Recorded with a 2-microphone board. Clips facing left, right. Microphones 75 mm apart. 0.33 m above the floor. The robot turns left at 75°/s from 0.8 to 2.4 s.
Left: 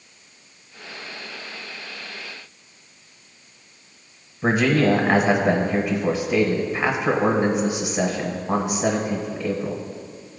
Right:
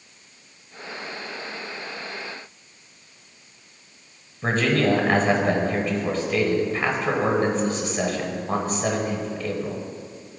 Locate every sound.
4.4 s a man speaking: 10° left (ahead or behind), 1.1 m